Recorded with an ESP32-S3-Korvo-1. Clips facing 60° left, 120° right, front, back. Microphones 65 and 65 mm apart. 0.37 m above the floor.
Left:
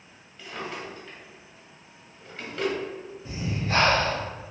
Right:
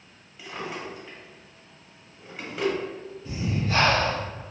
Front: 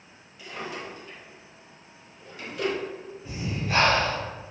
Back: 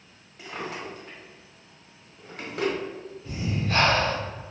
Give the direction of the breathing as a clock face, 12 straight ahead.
10 o'clock.